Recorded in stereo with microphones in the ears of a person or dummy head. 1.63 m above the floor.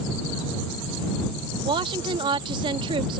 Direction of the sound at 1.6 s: 25° right (ahead or behind).